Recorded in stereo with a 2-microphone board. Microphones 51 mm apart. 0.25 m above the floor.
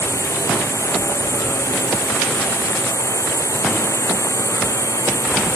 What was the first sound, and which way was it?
A drone, 85° left.